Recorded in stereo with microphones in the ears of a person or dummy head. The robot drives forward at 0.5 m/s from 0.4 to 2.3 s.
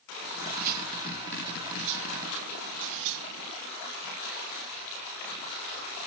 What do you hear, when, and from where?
0.2 s cutlery clinking: 45° right (ahead or behind); by 3.5 s 70° right (ahead or behind)